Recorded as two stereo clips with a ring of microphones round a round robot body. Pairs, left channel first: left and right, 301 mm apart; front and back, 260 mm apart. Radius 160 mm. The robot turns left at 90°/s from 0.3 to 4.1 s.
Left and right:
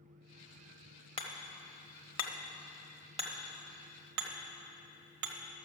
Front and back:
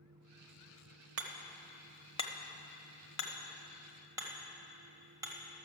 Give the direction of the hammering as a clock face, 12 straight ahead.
7 o'clock.